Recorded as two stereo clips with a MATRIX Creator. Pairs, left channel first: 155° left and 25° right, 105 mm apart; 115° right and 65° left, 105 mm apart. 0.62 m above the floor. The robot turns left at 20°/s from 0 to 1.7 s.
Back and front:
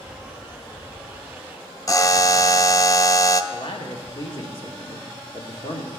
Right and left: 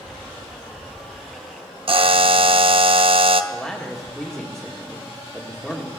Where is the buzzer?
100° left, 0.5 m.